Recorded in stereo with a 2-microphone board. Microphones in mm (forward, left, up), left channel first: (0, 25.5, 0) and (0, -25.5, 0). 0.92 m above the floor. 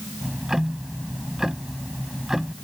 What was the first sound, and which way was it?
Ticking, 10° right (ahead or behind).